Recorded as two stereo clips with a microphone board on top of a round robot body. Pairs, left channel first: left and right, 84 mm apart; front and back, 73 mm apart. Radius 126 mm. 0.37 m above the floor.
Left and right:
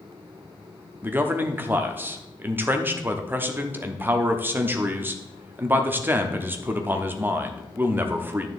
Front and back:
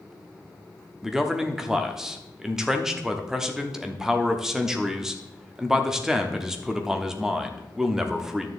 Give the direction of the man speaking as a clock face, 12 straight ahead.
4 o'clock.